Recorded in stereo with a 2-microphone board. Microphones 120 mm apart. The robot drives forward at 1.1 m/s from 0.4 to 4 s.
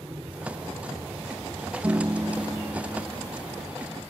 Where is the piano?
20° right (ahead or behind); by 3.7 s 5° right (ahead or behind).